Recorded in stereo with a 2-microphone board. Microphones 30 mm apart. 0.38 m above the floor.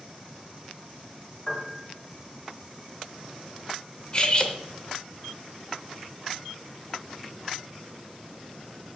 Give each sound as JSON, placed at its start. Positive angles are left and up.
{"t": 1.5, "sound": "a piano", "side_deg": 25, "distance_m": 1.6}
{"t": 4.1, "sound": "cutlery clinking", "side_deg": 30, "distance_m": 0.7}